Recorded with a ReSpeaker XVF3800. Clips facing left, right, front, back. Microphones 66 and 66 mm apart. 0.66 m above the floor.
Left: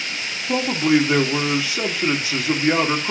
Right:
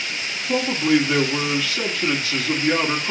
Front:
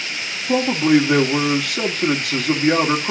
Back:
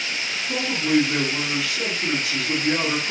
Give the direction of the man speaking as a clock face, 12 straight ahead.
11 o'clock.